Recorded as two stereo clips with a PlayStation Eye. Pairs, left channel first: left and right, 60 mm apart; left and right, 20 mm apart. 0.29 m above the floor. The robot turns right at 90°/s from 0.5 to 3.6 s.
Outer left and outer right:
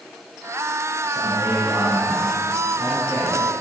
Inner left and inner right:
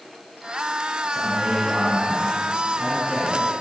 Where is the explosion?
I don't hear an explosion.